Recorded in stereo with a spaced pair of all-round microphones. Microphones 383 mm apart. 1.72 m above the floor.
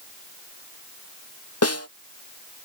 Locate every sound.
1.6 s a snare drum: 35° left (ahead or behind)